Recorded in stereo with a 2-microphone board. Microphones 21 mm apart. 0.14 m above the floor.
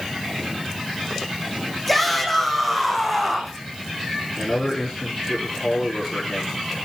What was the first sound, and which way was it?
A shout, 10° left (ahead or behind).